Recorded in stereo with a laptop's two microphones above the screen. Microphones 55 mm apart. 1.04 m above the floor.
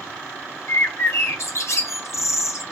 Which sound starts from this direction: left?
A bird, at 0.7 s.